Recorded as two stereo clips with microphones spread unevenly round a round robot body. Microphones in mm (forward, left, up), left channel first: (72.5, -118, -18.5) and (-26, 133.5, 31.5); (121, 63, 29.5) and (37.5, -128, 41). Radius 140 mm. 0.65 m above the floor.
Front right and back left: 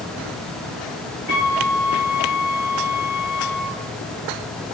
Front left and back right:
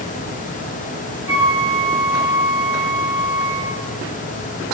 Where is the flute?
95° right, 5.5 m.